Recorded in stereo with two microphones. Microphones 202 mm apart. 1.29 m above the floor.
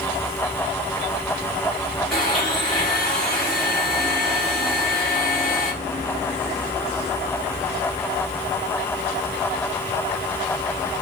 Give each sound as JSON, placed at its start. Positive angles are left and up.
{"t": 2.1, "sound": "a blender", "side_deg": 0, "distance_m": 2.5}